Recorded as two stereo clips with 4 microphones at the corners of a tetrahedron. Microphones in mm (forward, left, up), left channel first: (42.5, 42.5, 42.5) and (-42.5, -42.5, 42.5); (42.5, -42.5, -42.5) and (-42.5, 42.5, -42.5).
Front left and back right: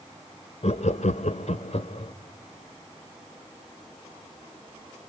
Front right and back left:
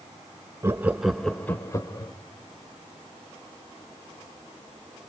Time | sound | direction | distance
0.6 | laughter | 70° left | 0.8 m